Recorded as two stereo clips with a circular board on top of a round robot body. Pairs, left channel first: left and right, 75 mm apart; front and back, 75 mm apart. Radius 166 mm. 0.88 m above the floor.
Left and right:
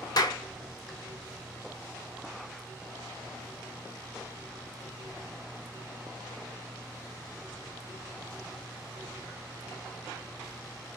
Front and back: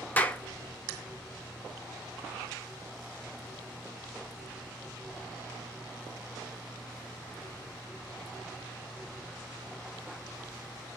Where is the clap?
65° left, 1.3 m.